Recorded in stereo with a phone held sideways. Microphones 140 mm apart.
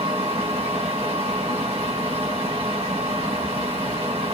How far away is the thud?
No thud in this recording.